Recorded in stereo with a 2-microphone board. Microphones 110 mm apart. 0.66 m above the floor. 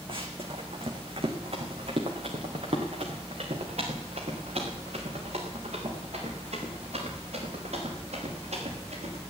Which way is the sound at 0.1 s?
55° right (ahead or behind).